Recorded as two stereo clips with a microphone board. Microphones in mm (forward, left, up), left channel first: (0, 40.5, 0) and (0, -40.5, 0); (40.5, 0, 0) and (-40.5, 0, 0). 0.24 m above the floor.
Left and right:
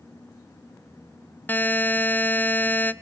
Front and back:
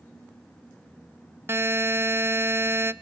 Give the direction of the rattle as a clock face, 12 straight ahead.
No rattle in this recording.